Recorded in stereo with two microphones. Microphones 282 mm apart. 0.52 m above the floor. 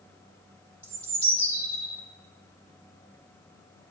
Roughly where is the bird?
Right.